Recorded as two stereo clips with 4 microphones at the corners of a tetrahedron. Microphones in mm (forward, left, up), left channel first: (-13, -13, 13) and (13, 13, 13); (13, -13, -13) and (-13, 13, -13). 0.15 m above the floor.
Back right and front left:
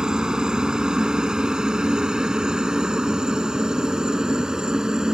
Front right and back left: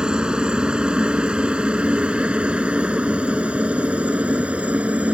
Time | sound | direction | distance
0.0 | a helicopter | 95° left | ?